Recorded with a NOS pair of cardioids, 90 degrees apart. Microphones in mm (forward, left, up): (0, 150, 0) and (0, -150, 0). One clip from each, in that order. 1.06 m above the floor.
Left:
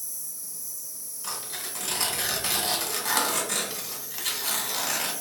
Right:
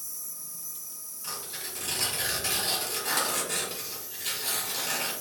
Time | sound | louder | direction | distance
0.0 | an insect | left 2 dB | 40° left | 1.5 m
1.2 | tearing paper | left 2 dB | 35° left | 1.8 m